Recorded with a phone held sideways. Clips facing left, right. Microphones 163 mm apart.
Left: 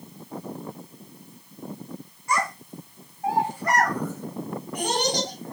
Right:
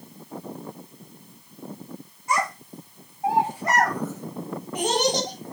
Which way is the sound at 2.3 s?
25° right (ahead or behind).